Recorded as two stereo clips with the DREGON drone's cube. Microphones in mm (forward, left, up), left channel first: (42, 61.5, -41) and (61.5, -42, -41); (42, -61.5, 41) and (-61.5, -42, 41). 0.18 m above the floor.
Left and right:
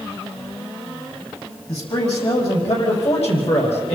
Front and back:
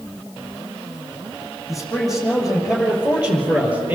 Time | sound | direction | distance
1.7 | a man speaking | 80° left | 6 m